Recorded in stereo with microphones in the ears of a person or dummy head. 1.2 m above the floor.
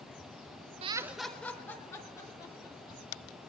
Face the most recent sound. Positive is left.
turn(degrees=20)  # may be behind; listen again after turning